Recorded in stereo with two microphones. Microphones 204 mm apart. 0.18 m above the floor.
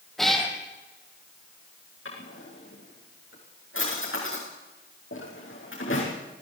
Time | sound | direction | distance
0.2 | a cat meowing | centre (ahead or behind) | 2.5 m
2.0 | a drawer | 80° left | 8 m